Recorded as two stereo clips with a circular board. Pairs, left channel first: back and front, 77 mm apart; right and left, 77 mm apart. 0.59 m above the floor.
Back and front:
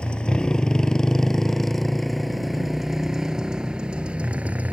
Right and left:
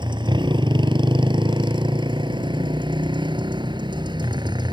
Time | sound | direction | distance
0.0 | a motorcycle | 105° left | ?